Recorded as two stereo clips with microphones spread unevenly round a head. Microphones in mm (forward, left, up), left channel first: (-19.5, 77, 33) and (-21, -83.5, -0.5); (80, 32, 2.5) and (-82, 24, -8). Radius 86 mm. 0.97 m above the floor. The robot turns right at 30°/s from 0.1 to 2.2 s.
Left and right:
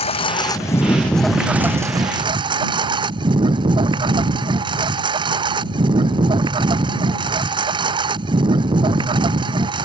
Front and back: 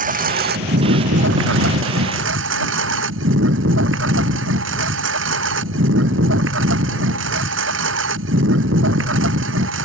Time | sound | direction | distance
0.0 | a lawn mower | 145° left | ?